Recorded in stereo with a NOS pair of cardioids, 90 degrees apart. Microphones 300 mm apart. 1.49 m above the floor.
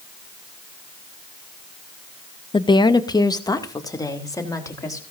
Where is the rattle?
I don't hear a rattle.